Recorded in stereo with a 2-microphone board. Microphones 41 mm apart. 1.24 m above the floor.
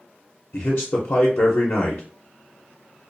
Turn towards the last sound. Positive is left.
turn(degrees=65)  # may be behind; listen again after turning